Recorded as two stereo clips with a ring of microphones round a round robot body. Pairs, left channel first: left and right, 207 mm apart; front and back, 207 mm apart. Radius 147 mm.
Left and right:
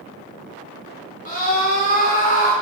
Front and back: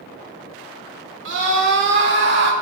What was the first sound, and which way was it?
A scream, 155° left.